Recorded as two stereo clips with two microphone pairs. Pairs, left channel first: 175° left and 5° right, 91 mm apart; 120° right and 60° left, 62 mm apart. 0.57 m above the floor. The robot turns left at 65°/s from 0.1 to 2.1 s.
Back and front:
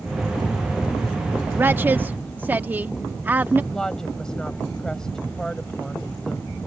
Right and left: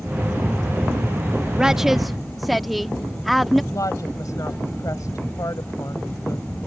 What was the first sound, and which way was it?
A woman speaking, 5° left.